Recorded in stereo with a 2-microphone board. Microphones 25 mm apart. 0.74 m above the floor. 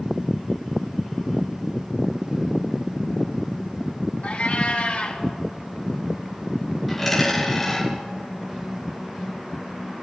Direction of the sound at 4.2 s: 75° left (ahead or behind).